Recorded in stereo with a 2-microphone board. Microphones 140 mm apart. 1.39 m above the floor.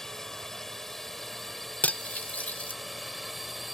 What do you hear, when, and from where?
0.0 s a drone: 5° left (ahead or behind); by 3.7 s centre (ahead or behind)
1.8 s cutlery clinking: 10° left (ahead or behind)